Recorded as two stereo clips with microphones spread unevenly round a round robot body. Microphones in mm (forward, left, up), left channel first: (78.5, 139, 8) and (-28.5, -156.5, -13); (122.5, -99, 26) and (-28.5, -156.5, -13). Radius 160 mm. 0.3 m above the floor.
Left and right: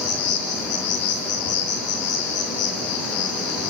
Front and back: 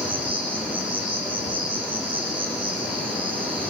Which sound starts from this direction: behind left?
An insect, at 0.0 s.